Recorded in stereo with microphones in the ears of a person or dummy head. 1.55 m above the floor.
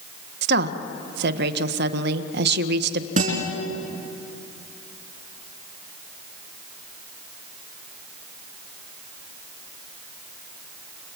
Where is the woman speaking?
65° right (ahead or behind), 1.5 m.